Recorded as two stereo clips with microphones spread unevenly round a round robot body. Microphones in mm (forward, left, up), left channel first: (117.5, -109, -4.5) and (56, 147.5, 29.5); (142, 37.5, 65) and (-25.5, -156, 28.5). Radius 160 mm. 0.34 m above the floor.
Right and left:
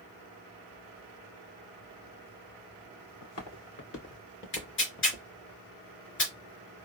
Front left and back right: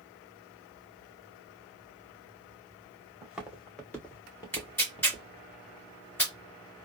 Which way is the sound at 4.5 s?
35° right.